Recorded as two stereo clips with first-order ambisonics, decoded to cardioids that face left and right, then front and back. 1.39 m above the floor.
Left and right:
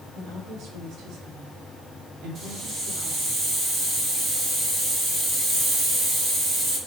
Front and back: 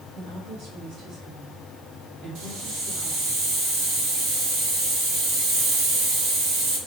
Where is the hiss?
155° right, 4.5 m.